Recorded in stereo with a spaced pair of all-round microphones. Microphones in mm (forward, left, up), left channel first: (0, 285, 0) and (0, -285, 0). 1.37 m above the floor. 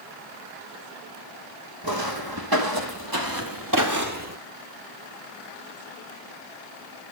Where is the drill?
I don't hear a drill.